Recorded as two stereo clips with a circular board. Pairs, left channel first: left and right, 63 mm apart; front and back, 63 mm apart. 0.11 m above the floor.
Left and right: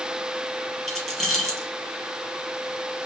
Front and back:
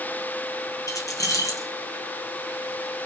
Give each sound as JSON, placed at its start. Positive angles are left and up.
{"t": 0.9, "sound": "keys jangling", "azimuth_deg": 10, "distance_m": 1.6}